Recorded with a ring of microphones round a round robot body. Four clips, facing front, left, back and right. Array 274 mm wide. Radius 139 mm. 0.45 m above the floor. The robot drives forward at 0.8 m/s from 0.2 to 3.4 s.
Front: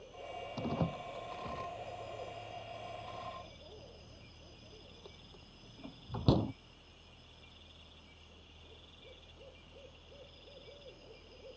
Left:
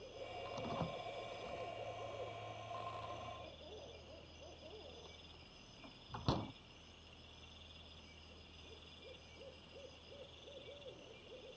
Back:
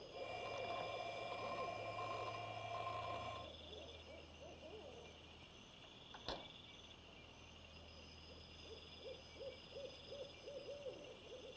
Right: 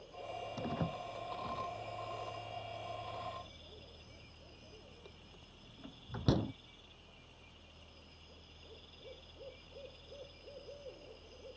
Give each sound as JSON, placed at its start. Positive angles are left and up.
{"t": 0.6, "sound": "a door slam", "azimuth_deg": -25}